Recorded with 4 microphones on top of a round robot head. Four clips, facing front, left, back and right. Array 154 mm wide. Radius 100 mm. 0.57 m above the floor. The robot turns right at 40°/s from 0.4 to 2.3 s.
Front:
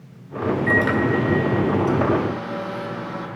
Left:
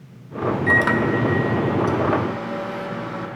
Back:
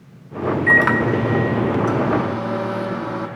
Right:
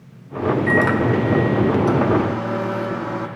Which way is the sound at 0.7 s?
160° left.